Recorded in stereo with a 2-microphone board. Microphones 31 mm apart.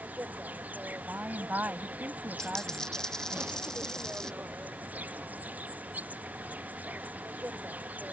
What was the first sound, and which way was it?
An insect, 50° right (ahead or behind).